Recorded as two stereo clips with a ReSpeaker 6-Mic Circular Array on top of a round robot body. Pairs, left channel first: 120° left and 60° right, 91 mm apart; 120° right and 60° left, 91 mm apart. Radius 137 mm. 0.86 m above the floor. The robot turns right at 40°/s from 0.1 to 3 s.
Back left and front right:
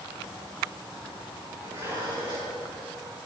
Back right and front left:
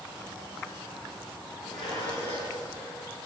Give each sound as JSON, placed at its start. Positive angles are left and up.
{"t": 1.6, "sound": "dishes clattering", "azimuth_deg": -125, "distance_m": 9.0}